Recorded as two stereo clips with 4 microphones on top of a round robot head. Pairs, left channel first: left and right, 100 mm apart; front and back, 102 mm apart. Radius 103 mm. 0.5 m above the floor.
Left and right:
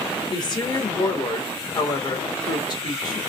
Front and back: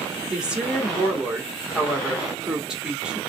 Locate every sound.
0.3 s a woman speaking: 100° left, 1.8 m